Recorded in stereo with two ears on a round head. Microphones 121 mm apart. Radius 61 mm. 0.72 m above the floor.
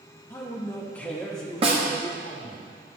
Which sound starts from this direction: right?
A snare drum, at 1.6 s.